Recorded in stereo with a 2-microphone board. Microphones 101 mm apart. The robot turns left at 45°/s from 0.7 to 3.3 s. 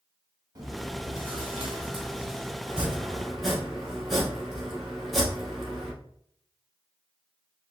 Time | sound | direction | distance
0.6 | chewing | 50° right | 1.2 m
2.7 | chopping | 15° right (ahead or behind) | 1.2 m